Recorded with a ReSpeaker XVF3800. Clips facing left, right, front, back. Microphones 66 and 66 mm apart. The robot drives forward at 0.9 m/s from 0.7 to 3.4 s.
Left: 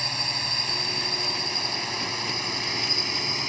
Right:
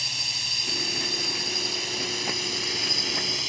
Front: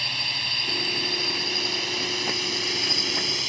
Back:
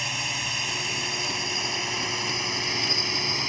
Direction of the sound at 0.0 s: 110° left.